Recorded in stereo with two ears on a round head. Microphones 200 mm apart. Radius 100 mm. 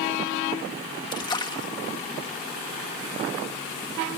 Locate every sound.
1.1 s a splash: 20° left (ahead or behind)